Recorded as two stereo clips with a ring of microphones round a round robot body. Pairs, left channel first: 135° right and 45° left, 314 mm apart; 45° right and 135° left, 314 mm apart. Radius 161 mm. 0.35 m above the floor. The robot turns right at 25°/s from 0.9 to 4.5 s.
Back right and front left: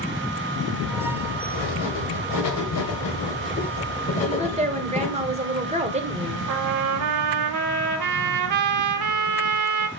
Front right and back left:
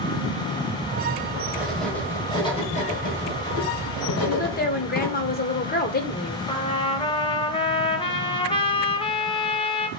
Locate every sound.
1.5 s writing: 140° right, 2 m; by 5.3 s 65° right, 2 m
4.3 s a woman speaking: 15° right, 1.2 m; by 6.4 s 10° right, 1.2 m
6.5 s a trumpet: 25° left, 0.9 m